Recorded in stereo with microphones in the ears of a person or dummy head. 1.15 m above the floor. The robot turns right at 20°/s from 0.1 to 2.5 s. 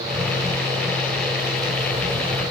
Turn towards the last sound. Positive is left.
No sound to turn to.